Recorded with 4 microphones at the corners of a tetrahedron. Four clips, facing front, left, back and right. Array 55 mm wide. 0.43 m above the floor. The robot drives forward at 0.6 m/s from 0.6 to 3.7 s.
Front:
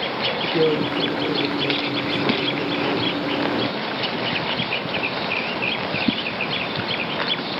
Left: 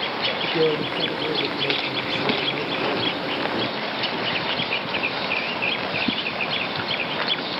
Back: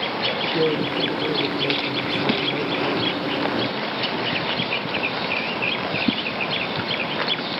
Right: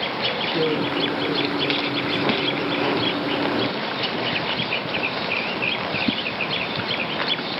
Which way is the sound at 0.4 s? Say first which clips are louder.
Left 2 dB, front 3 dB; 35° left.